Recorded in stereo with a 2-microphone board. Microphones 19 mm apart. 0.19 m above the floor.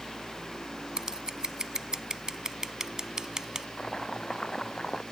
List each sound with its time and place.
1.0 s scissors: 35° right (ahead or behind)
3.8 s chopping: 30° left (ahead or behind)